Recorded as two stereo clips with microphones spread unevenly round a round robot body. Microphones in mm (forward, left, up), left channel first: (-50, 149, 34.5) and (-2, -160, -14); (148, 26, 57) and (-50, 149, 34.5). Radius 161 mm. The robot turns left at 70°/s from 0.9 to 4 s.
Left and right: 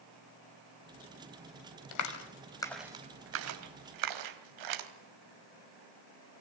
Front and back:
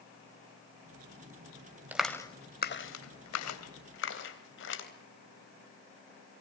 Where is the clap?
65° left, 3 m; by 4.9 s 80° right, 3 m.